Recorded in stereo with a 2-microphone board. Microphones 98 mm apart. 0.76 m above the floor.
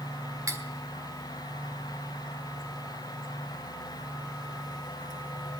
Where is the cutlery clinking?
35° right (ahead or behind), 1.5 m.